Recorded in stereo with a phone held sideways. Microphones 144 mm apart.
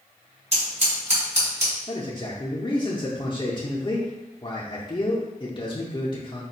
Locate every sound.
0.5 s scissors: 50° right (ahead or behind), 1.8 m
1.9 s a man speaking: 35° left (ahead or behind), 0.6 m